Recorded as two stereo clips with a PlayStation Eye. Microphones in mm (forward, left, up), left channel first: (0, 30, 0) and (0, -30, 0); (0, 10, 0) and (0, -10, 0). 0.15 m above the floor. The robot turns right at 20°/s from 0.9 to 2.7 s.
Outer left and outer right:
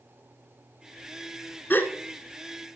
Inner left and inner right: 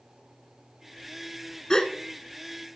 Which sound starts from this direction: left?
A gasp, at 1.7 s.